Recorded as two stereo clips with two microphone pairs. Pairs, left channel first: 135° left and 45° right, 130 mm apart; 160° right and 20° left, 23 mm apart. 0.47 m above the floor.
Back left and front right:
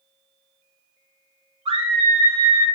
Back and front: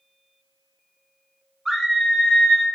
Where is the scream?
65° right, 1.1 m; by 2.6 s 170° right, 0.8 m.